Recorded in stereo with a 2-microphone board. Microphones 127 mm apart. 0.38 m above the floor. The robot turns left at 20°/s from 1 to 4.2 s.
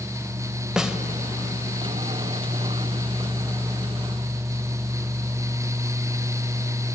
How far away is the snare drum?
About 1.9 m.